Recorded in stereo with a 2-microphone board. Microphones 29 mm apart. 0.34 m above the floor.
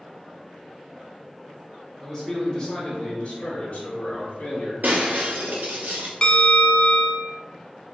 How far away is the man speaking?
About 1.0 m.